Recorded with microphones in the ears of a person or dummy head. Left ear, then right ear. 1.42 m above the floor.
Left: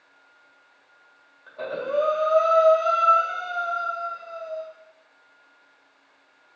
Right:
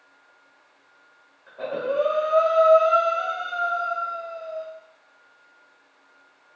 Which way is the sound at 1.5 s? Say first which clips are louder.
Right 1 dB; 80° left.